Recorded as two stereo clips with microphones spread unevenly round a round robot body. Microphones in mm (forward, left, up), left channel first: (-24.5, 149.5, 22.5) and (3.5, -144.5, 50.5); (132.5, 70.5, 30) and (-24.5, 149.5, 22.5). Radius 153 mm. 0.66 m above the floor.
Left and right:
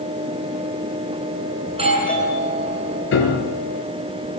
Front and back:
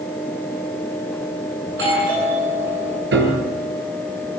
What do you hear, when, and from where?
1.7 s a doorbell: 155° right, 9.5 m
3.1 s a piano: 145° left, 5.5 m